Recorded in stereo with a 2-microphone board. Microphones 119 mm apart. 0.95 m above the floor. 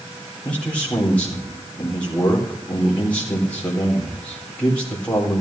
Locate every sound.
0.5 s a man speaking: 10° left (ahead or behind), 3.5 m